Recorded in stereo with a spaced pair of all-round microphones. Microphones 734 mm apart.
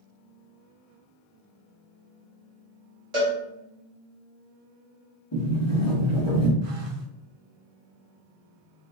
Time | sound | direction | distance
3.1 | a cowbell | 75° right (ahead or behind) | 1.6 m
5.3 | a sliding door | 35° left (ahead or behind) | 1.7 m
6.6 | a phone buzzing | 50° right (ahead or behind) | 0.8 m